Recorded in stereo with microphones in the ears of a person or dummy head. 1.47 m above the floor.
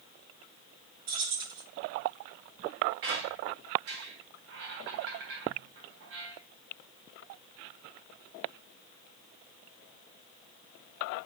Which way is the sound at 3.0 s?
70° right (ahead or behind).